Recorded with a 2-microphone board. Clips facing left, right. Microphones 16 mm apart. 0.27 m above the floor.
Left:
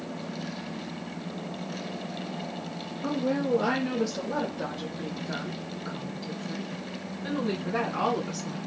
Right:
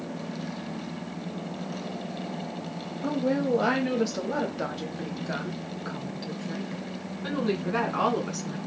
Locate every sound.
3.0 s a woman speaking: 15° right (ahead or behind), 1.1 m; by 8.6 s 20° right (ahead or behind), 2.5 m